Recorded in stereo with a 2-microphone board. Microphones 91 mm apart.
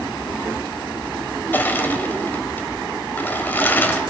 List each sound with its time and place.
1.5 s crushing: 20° left (ahead or behind), 1.0 m